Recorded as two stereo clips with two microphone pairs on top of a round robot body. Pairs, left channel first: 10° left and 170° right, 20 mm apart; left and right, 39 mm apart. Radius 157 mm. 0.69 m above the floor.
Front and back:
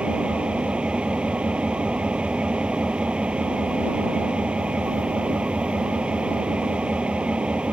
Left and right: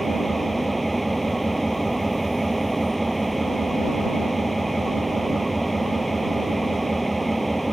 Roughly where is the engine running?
Behind.